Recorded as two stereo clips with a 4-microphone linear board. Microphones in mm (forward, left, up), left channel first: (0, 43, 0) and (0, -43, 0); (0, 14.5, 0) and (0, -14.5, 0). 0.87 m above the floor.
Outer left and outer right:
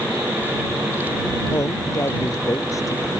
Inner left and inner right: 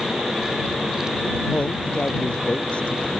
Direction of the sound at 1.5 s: 35° left (ahead or behind).